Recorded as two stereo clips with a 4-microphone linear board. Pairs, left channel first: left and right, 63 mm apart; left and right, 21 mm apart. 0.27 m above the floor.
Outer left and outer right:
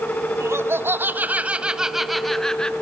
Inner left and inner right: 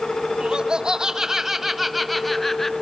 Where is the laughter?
45° right (ahead or behind), 1.7 m; by 2.7 s 15° left (ahead or behind), 1.7 m.